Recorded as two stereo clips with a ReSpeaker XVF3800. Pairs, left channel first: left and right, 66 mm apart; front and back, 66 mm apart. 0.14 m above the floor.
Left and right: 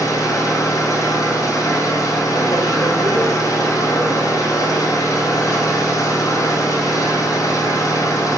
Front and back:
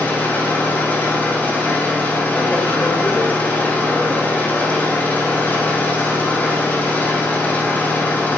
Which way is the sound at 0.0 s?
65° left.